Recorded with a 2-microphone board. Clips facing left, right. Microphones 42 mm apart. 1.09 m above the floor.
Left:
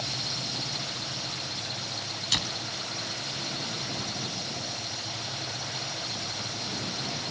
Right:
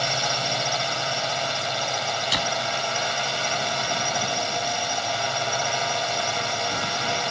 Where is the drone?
75° right (ahead or behind).